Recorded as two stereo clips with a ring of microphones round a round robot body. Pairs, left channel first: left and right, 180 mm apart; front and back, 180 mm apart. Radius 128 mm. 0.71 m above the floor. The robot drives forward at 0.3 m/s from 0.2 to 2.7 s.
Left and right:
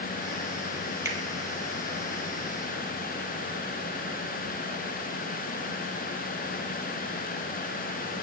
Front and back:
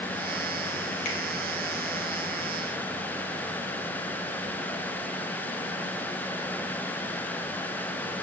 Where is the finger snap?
15° right, 1.7 m.